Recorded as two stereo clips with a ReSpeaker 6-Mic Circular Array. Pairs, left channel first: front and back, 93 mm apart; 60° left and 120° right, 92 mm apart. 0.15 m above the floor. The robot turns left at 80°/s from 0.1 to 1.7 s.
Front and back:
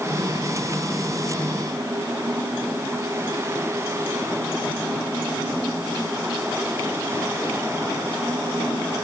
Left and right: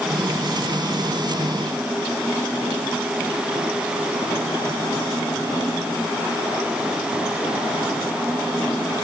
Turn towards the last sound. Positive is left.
No sound to turn to.